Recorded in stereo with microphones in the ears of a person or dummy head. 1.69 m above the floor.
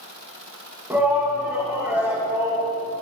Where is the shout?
10° right (ahead or behind), 2.5 m.